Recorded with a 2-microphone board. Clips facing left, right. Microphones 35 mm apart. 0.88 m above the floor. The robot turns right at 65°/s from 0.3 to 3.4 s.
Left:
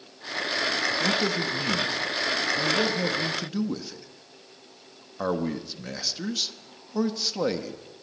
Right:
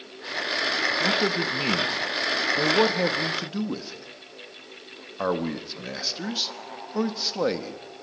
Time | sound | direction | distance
1.0 | a man speaking | 10° right (ahead or behind) | 1.5 m